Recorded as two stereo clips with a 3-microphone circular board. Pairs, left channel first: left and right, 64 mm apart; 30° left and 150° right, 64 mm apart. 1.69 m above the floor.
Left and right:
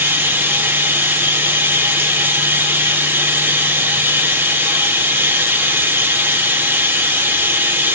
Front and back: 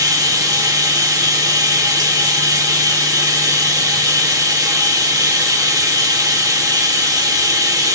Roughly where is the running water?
Behind right.